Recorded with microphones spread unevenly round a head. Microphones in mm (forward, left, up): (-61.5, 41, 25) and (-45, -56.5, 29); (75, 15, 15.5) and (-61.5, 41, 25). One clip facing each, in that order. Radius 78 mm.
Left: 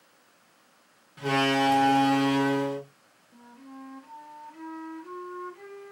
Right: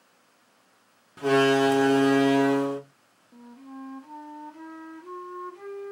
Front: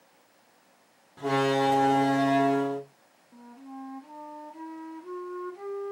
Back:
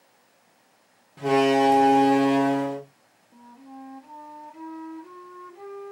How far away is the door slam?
About 0.8 m.